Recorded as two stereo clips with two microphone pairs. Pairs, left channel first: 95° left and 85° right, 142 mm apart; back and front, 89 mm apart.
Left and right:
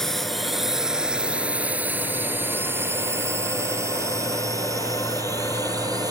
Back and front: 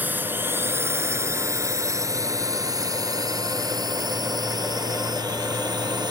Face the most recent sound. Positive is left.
turn(degrees=-25)